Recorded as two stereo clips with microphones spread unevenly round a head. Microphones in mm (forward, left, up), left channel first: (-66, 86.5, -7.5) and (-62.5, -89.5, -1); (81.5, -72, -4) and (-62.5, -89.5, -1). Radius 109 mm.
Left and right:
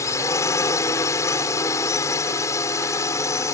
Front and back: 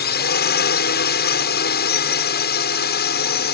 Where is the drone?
15° left.